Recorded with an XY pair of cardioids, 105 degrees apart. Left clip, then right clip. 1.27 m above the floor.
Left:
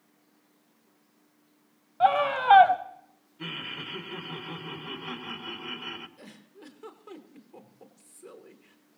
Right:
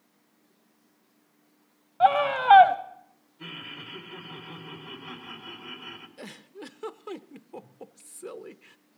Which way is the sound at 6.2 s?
55° right.